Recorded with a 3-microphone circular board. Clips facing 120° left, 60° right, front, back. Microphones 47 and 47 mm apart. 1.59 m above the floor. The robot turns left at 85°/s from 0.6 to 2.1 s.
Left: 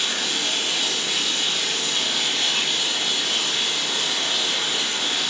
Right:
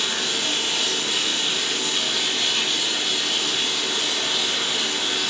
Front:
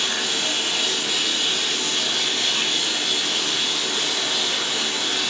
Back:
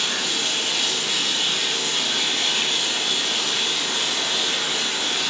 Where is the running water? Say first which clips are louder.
Even, front 1 dB; 15° right, 1.7 m; by 5.3 s 145° right, 1.7 m.